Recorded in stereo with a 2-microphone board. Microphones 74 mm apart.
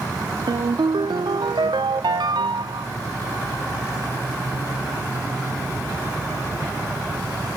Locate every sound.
0.5 s a ringtone: 75° right (ahead or behind), 0.5 m